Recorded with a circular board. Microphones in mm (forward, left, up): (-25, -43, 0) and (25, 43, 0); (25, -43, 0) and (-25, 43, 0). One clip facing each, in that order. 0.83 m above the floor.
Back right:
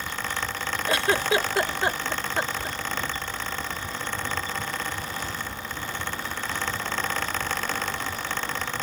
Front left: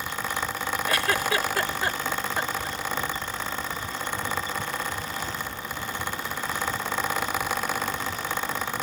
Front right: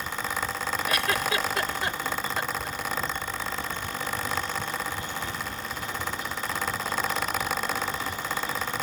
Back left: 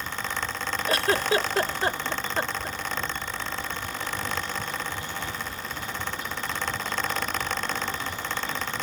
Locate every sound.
0.9 s a giggle: 175° left